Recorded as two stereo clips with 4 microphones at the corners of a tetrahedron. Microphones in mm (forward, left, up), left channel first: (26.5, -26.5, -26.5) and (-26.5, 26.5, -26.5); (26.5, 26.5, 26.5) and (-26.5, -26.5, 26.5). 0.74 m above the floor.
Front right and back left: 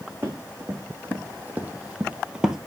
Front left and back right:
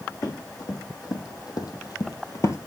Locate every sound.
0.2 s running footsteps: 75° left, 3 m; by 2.6 s 50° left, 1.0 m